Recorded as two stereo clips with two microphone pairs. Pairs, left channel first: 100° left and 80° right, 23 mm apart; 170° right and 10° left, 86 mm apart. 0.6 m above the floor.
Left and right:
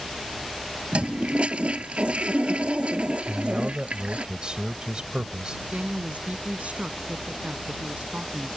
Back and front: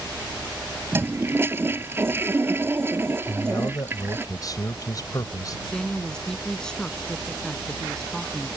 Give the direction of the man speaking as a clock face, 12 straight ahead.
4 o'clock.